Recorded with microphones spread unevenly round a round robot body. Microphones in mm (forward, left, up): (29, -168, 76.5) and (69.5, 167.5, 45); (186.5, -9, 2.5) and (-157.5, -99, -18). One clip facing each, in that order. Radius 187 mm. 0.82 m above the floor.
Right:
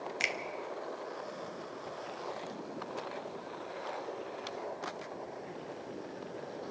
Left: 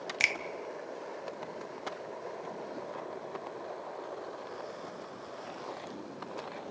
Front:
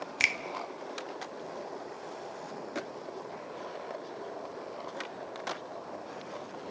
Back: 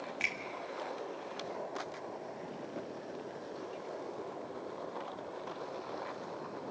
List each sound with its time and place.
0.2 s a finger snap: 20° left, 0.8 m